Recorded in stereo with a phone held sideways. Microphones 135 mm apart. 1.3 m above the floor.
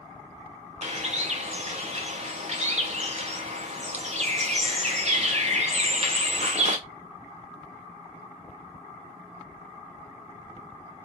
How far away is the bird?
About 0.6 m.